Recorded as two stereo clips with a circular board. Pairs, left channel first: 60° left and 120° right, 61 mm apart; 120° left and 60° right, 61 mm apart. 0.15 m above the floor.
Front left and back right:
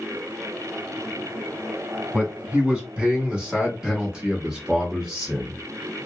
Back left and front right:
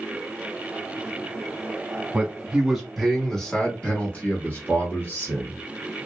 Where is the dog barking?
I don't hear a dog barking.